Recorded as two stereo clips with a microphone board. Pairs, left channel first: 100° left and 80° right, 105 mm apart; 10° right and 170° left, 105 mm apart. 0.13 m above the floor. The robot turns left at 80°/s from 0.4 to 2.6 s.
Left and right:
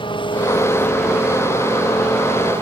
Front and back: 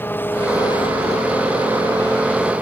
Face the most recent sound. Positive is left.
turn(degrees=-115)